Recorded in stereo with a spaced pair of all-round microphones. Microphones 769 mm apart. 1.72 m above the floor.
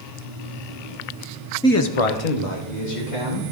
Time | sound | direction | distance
1.6 | a man speaking | 5° left (ahead or behind) | 0.5 m